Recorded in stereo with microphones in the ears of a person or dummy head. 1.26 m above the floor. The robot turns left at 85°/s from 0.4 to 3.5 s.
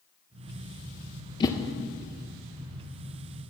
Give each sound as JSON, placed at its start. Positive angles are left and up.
{"t": 1.4, "sound": "a whoosh", "side_deg": 25, "distance_m": 0.6}